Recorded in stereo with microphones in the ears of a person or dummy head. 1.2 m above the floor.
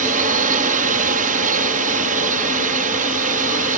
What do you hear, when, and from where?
0.0 s a drone: 40° right (ahead or behind)